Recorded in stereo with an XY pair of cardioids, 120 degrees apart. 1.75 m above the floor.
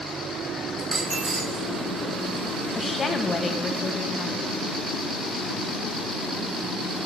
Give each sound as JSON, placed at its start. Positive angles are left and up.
{"t": 0.8, "sound": "a dropped coin", "azimuth_deg": -25, "distance_m": 4.5}
{"t": 2.8, "sound": "a woman speaking", "azimuth_deg": 30, "distance_m": 1.9}